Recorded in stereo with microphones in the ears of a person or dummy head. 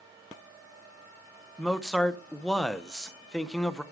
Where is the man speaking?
Centre (ahead or behind), 0.7 m.